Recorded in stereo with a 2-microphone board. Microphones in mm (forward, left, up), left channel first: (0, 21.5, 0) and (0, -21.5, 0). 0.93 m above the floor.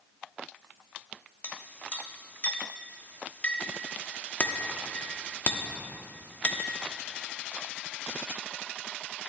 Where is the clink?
40° left (ahead or behind), 1.0 m.